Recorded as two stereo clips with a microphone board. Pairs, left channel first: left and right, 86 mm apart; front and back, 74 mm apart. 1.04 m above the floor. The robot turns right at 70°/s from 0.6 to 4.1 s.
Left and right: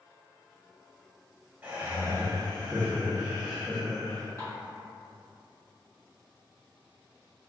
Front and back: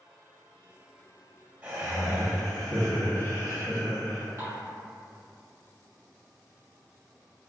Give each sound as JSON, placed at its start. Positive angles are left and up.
{"t": 1.6, "sound": "laughter", "azimuth_deg": -130, "distance_m": 0.8}
{"t": 4.4, "sound": "dishes clattering", "azimuth_deg": 145, "distance_m": 1.3}